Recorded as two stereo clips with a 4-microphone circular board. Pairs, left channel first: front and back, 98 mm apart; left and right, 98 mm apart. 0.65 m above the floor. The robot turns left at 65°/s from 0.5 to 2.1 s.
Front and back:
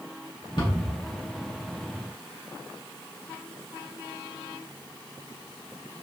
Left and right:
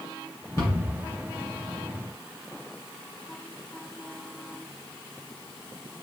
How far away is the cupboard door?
About 1.9 m.